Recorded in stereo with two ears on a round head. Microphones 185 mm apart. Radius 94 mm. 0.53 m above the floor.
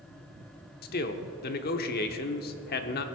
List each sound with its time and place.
0.8 s a man speaking: 50° left (ahead or behind), 1.0 m